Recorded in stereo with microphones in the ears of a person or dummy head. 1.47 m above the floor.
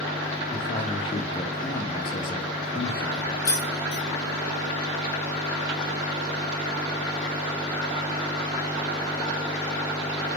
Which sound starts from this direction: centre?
Keys jangling, at 3.5 s.